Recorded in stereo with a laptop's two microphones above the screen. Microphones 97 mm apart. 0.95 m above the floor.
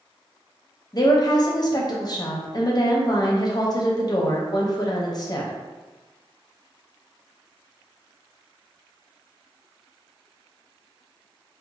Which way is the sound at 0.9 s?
40° left (ahead or behind).